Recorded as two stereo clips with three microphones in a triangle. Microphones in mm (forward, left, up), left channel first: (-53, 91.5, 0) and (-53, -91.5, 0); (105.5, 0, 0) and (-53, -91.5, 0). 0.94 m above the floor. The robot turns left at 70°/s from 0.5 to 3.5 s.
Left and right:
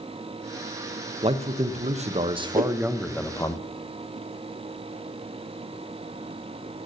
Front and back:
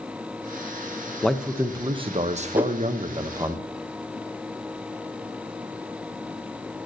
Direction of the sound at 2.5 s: 70° right.